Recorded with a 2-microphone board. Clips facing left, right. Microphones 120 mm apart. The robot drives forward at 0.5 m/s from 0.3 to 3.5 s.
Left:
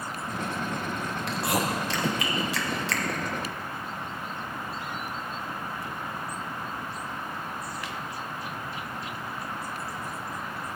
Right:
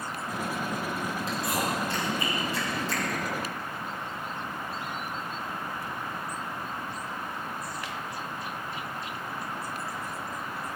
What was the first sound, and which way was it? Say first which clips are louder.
Chewing: left 4 dB; 65° left (ahead or behind).